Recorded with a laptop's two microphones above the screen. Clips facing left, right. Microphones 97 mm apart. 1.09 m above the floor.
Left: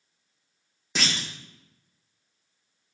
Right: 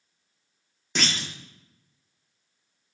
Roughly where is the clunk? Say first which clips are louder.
Right 1 dB; centre.